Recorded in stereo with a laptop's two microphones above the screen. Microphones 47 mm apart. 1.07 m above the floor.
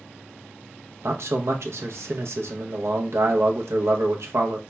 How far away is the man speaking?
About 0.8 m.